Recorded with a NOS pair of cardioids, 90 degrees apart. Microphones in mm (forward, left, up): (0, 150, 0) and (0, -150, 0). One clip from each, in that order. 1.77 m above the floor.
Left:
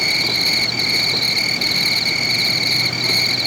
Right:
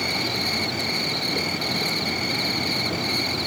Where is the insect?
55° left.